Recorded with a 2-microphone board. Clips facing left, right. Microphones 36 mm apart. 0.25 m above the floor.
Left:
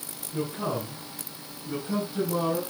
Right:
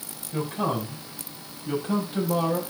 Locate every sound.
0.3 s a man speaking: 80° right, 8 m; by 2.6 s 70° right (ahead or behind), 6.5 m